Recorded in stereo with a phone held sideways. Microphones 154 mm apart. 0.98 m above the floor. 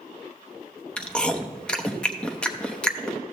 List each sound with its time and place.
1.0 s chewing: 5° left (ahead or behind), 0.7 m